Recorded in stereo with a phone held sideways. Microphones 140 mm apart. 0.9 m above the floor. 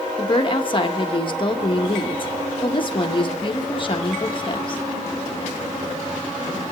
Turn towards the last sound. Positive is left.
turn(degrees=35)  # may be behind; listen again after turning